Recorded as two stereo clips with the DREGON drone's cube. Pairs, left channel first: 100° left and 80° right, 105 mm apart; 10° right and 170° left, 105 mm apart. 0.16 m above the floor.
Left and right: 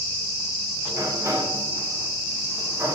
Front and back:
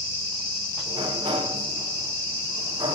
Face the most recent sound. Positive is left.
turn(degrees=-140)